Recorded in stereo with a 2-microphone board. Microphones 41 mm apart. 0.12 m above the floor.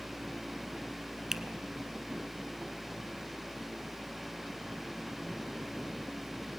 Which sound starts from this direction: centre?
A finger snap, at 1.3 s.